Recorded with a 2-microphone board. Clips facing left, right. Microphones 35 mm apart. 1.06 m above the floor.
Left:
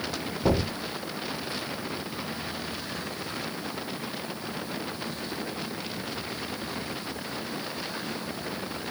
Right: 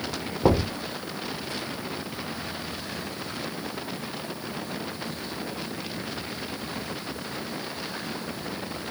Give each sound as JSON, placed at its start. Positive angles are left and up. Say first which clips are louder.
{"t": 0.4, "sound": "knocking", "louder": "right 4 dB", "side_deg": -55, "distance_m": 1.7}